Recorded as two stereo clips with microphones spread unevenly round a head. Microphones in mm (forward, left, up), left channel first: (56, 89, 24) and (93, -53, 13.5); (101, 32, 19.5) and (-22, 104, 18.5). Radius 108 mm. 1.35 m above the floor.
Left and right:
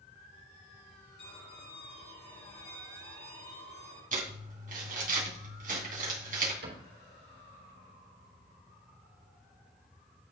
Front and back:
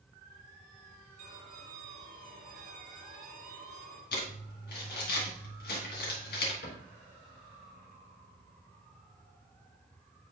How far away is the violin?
About 4 m.